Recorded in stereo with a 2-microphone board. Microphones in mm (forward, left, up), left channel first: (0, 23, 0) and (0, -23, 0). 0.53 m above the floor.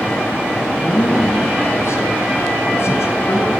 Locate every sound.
0.8 s a man speaking: 65° left (ahead or behind), 6 m; by 3.5 s 80° left, 8 m